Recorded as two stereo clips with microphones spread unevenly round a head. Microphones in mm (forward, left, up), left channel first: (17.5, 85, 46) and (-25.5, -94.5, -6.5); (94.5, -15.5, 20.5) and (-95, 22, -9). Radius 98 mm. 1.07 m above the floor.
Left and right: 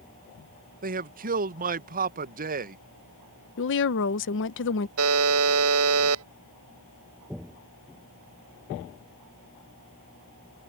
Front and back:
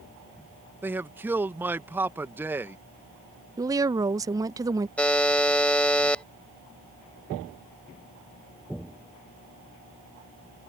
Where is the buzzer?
95° right.